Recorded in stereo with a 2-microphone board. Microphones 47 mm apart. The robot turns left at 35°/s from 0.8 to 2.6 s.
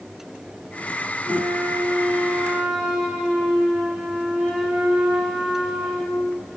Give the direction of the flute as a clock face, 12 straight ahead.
3 o'clock.